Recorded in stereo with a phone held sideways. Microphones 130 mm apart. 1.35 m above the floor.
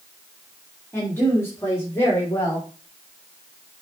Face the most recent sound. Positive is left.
turn(degrees=20)  # may be behind; listen again after turning